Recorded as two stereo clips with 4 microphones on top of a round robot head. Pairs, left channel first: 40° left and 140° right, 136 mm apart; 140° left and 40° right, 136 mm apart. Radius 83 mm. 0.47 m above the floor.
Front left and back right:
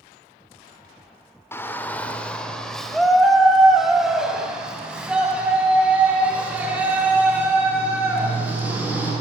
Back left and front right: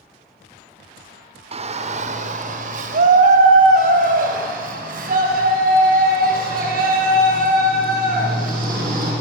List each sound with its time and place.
1.5 s a shout: 25° right, 2.0 m; by 9.1 s 60° right, 8.5 m